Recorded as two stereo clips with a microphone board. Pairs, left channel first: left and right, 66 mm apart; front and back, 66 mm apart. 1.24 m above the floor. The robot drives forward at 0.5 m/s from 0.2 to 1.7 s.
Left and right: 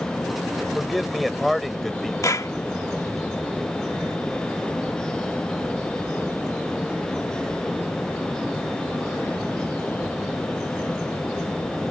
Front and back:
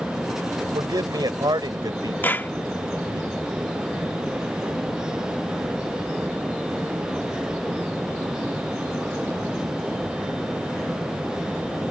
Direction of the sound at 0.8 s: Straight behind.